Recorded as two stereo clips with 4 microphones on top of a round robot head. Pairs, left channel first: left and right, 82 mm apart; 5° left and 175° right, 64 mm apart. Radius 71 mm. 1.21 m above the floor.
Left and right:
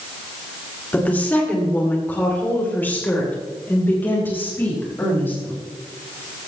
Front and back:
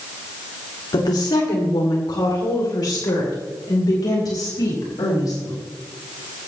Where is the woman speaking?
20° left, 2.5 m; by 5.6 s 25° left, 6 m.